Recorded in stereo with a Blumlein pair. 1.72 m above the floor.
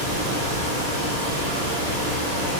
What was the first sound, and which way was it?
A fan, 35° right.